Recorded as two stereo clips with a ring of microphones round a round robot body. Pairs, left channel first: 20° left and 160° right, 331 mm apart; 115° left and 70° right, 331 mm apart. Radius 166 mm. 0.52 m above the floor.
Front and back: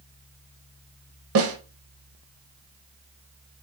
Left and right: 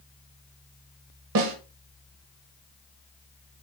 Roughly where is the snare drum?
Right.